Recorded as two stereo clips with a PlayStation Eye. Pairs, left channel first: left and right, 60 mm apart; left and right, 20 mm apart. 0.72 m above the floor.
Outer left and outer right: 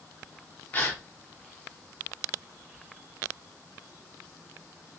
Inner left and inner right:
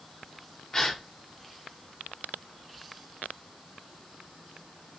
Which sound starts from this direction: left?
A gasp, at 0.7 s.